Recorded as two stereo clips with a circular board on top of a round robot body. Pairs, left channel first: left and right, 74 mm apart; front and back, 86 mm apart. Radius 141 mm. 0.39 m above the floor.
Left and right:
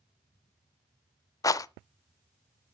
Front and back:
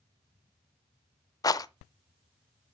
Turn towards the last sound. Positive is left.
turn(degrees=50)